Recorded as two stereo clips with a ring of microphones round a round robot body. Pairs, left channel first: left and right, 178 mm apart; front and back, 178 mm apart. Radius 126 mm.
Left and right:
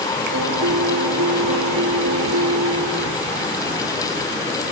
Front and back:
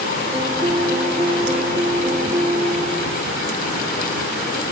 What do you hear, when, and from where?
0.3 s a piano: 105° right